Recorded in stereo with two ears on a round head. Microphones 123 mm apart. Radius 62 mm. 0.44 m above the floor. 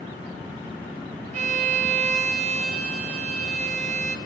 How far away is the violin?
About 3 m.